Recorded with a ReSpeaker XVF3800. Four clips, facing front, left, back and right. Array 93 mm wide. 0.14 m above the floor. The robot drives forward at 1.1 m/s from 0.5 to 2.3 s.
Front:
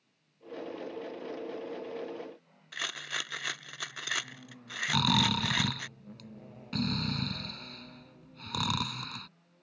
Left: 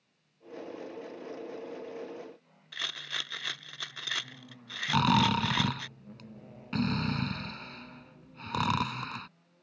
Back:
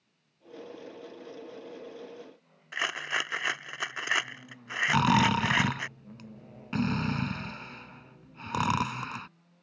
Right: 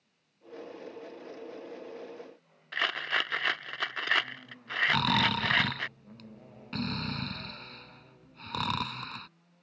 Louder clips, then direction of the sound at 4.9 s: Left 4 dB, back 5 dB; 155° left.